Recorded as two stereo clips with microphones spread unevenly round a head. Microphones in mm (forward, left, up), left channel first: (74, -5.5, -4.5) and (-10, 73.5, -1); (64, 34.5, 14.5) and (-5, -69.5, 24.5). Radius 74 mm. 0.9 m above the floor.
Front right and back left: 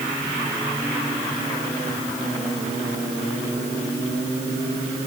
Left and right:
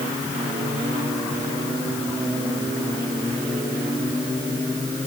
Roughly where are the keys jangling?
No keys jangling in this recording.